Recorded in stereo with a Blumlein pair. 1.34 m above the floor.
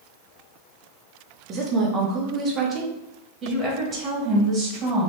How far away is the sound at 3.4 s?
About 2 m.